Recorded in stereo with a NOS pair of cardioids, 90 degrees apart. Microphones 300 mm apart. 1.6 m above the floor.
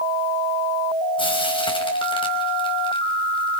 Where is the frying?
15° left, 4.5 m.